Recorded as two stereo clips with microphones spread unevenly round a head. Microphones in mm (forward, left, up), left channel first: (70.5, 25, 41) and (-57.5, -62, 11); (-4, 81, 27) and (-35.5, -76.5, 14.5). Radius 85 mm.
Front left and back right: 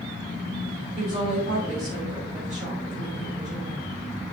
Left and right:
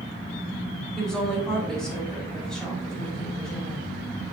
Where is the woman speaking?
165° left, 5 m.